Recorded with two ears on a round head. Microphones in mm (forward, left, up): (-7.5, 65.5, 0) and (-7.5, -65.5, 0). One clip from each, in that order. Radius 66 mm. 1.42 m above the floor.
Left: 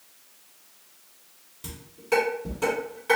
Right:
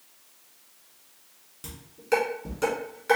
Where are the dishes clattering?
15° right (ahead or behind), 2.5 m.